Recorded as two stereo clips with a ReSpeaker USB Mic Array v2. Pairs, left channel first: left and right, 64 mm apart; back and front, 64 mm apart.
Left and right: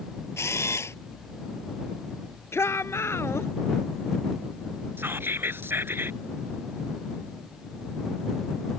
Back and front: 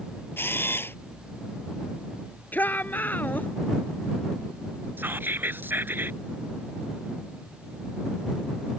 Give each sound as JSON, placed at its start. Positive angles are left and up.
{"t": 0.4, "sound": "a camera shutter", "azimuth_deg": 130}
{"t": 2.5, "sound": "a shout", "azimuth_deg": 125}
{"t": 5.0, "sound": "whispering", "azimuth_deg": -45}